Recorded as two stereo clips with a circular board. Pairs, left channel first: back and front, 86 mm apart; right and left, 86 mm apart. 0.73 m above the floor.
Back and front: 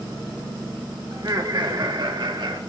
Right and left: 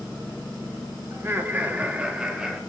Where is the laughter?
35° left, 1.6 m; by 2.6 s 5° left, 1.9 m.